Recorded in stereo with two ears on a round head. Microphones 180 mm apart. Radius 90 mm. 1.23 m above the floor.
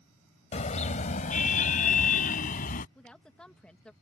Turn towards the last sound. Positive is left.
turn(degrees=5)  # may be behind; listen again after turning